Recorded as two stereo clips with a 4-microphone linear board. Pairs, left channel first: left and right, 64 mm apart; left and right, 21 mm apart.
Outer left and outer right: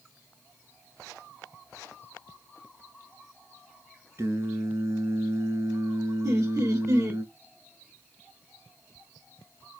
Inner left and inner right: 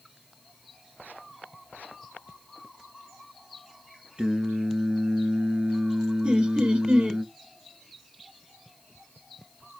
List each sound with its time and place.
4.2 s singing: 50° right (ahead or behind), 1.6 m
6.2 s laughter: 55° right (ahead or behind), 1.6 m